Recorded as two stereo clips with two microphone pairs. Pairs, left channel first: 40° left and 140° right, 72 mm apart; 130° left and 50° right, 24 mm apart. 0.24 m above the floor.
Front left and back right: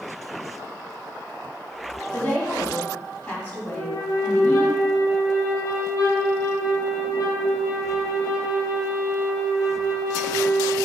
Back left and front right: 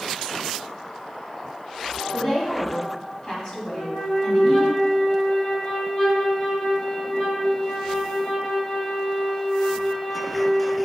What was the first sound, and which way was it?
A woman speaking, 95° left.